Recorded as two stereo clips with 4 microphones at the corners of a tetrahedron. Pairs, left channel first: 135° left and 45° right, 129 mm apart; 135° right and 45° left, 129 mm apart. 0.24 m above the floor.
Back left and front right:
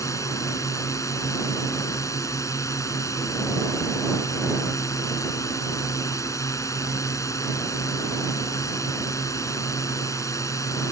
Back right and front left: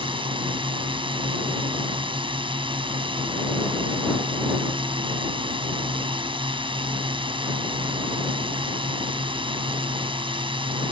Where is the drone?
75° left.